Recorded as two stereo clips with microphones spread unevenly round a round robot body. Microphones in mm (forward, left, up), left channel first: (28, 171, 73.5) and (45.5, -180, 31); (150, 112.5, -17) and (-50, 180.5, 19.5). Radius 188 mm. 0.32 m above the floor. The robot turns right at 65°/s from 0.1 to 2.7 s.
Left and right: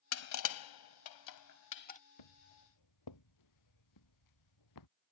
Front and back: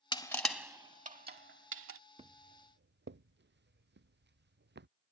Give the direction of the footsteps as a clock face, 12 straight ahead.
9 o'clock.